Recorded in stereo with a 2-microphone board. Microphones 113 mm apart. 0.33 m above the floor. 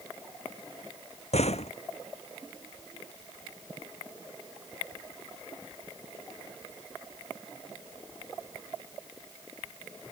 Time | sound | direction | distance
1.3 | a door slam | 70° left (ahead or behind) | ?